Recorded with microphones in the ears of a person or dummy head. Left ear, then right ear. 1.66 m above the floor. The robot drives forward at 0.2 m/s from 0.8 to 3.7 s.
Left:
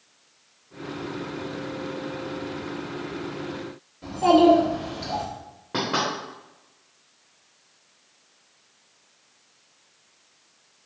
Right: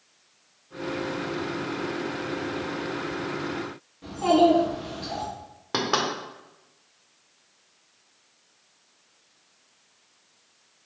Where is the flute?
I don't hear a flute.